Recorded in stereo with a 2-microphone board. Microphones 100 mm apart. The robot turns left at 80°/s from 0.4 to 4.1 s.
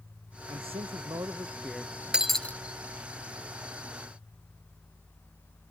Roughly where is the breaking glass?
Behind.